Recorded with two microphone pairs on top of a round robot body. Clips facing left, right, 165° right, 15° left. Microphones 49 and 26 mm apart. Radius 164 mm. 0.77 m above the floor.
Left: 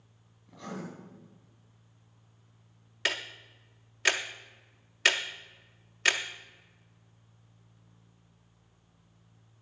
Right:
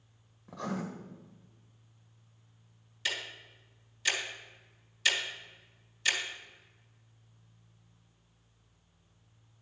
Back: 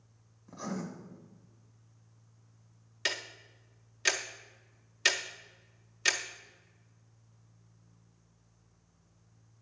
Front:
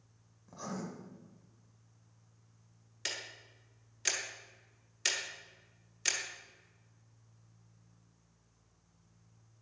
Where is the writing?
70° right, 1.4 m.